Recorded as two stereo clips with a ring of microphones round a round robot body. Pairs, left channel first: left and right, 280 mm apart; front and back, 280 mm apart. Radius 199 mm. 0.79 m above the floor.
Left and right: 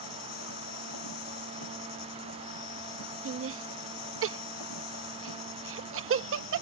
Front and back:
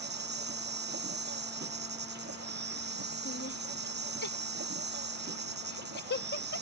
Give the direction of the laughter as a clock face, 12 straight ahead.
2 o'clock.